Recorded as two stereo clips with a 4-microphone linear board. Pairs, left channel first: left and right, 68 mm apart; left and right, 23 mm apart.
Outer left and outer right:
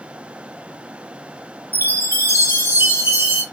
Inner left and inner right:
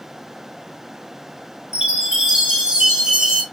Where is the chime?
35° right (ahead or behind), 2.5 m.